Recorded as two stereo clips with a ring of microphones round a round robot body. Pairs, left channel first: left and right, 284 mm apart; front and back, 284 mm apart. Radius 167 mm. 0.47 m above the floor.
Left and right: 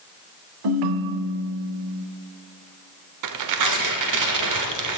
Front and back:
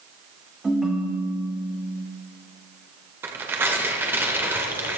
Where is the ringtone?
90° right, 0.9 m.